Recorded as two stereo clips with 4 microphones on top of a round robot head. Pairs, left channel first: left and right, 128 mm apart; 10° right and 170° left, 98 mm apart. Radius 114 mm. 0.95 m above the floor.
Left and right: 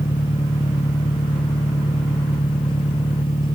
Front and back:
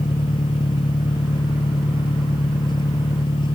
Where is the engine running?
30° left.